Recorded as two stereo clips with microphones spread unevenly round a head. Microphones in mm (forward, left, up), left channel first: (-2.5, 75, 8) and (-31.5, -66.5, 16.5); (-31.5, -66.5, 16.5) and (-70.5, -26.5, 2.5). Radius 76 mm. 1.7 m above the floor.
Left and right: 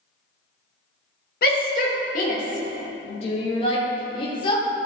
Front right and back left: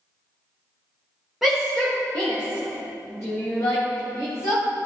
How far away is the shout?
About 1.9 m.